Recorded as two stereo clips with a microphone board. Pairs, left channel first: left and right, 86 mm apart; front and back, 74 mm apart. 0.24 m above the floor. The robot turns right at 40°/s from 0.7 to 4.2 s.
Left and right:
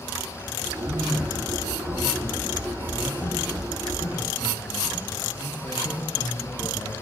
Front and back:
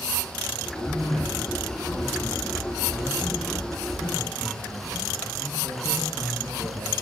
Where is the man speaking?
40° right, 3 m; by 7.0 s 95° left, 3 m.